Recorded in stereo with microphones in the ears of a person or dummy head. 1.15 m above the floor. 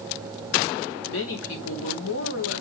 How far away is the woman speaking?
About 3.5 m.